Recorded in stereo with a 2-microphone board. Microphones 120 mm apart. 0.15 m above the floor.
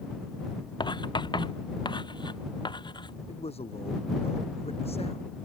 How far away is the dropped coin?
No dropped coin in this recording.